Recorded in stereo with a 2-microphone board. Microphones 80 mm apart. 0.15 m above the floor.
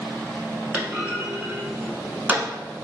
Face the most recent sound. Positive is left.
turn(degrees=-20)  # may be behind; listen again after turning